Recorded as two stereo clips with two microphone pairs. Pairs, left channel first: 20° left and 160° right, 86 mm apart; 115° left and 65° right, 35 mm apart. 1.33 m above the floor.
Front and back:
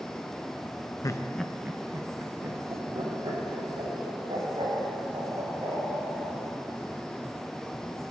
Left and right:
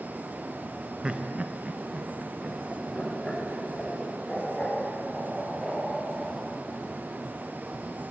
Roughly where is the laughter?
Ahead.